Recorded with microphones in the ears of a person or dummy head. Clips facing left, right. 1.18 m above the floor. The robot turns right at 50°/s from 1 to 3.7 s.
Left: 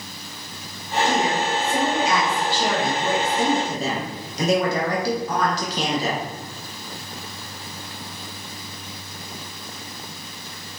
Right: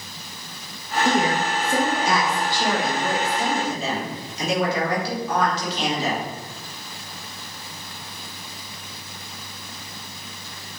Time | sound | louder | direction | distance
1.1 | a woman speaking | right 2 dB | 95° right | 0.8 m